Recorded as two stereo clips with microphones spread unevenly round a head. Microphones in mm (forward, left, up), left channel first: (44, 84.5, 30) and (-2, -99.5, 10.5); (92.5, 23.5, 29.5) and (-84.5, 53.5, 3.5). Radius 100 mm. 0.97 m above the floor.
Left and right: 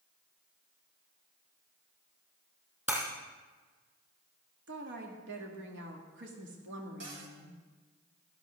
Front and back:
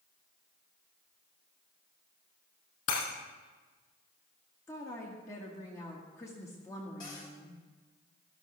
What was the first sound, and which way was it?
Breaking glass, 25° right.